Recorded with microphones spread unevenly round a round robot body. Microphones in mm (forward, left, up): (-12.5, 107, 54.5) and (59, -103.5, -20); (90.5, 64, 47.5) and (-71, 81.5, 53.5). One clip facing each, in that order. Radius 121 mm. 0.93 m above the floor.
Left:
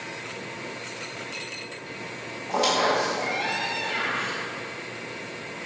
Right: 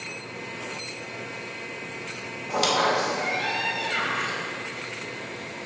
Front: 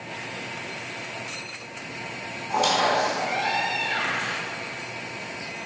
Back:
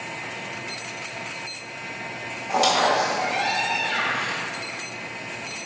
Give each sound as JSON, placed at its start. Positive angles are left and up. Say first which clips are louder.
{"t": 2.5, "sound": "a squeak", "louder": "left 1 dB, back 2 dB", "azimuth_deg": -145, "distance_m": 1.7}